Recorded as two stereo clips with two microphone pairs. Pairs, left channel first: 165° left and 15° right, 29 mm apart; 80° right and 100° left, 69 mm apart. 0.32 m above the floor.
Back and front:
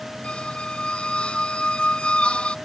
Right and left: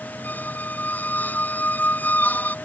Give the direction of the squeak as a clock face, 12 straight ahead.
5 o'clock.